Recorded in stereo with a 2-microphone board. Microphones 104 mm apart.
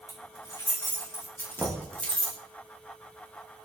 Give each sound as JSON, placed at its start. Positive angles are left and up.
{"t": 0.1, "sound": "keys jangling", "side_deg": 35, "distance_m": 4.0}
{"t": 1.6, "sound": "knocking", "side_deg": -5, "distance_m": 1.5}